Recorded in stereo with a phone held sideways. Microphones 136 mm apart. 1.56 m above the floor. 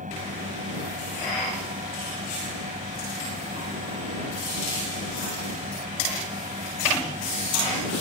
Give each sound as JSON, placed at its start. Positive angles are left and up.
{"t": 0.0, "sound": "a fan", "side_deg": -75}